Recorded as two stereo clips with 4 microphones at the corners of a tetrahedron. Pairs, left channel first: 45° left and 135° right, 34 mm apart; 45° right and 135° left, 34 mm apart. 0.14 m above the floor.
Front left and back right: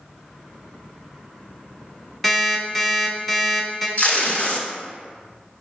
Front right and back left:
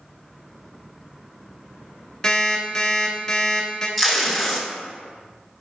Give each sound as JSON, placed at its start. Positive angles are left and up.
{"t": 2.2, "sound": "an alarm clock", "azimuth_deg": -35, "distance_m": 0.8}
{"t": 4.0, "sound": "tape being pulled", "azimuth_deg": 45, "distance_m": 0.7}